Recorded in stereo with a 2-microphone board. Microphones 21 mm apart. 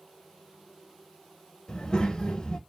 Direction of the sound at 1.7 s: 35° left (ahead or behind).